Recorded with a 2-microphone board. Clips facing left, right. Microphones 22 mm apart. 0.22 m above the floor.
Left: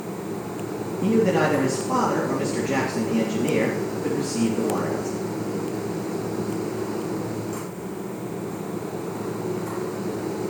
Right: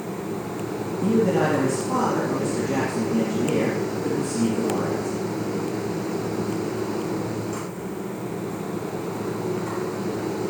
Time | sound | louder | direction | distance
1.0 | a man speaking | left 1 dB | 50° left (ahead or behind) | 3.5 m